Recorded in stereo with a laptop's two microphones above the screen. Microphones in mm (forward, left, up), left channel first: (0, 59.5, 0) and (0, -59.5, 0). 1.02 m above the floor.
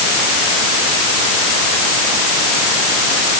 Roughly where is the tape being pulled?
No tape being pulled in this recording.